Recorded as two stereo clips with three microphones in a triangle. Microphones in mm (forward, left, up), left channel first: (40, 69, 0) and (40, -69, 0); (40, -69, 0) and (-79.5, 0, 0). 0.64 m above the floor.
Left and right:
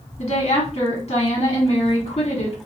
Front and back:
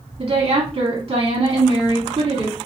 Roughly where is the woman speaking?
Left.